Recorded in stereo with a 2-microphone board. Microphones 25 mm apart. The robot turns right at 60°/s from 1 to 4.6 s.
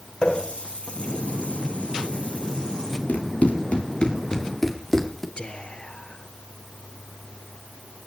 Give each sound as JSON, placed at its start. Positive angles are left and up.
{"t": 0.2, "sound": "a running tap", "side_deg": 40, "distance_m": 4.5}
{"t": 3.1, "sound": "running footsteps", "side_deg": 80, "distance_m": 5.5}
{"t": 5.4, "sound": "whispering", "side_deg": 45, "distance_m": 2.0}